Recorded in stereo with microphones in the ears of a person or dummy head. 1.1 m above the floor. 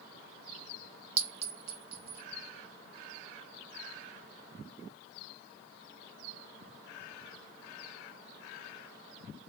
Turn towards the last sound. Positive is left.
turn(degrees=-35)  # may be behind; listen again after turning